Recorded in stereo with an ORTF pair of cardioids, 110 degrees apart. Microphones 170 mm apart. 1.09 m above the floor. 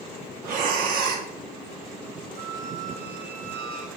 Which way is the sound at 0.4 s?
70° right.